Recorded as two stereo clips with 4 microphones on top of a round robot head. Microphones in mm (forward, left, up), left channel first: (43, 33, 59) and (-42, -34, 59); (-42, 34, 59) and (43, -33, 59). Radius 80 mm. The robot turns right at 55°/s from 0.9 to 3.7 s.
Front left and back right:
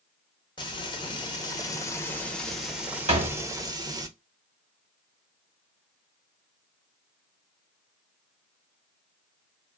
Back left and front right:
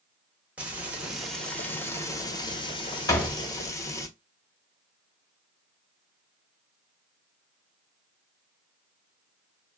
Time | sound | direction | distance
0.6 | frying | 35° left | 1.0 m
3.1 | a door slam | 160° right | 1.1 m